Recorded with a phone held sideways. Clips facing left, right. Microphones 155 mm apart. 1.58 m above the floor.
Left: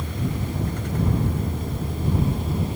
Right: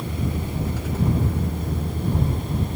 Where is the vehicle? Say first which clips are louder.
Right 1 dB; 5° right (ahead or behind); by 2.8 s 5° left (ahead or behind).